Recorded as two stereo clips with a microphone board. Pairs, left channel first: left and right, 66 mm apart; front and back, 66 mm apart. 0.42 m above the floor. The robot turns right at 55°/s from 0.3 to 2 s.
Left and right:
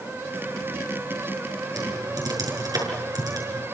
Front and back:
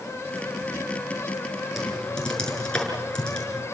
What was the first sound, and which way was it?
Typing on a keyboard, 90° right.